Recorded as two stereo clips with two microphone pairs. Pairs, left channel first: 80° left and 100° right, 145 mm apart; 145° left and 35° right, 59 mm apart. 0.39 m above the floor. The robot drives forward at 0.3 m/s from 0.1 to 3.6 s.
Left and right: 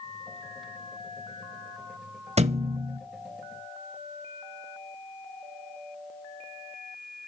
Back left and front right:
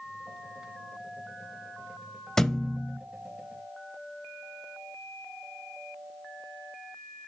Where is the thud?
135° right, 0.7 m; by 3.0 s 145° right, 0.8 m.